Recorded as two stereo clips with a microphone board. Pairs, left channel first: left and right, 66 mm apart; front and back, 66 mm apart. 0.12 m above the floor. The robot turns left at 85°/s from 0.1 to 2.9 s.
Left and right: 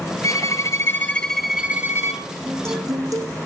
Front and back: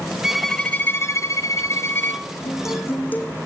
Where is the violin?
100° left, 2.5 m; by 2.2 s 70° right, 2.5 m.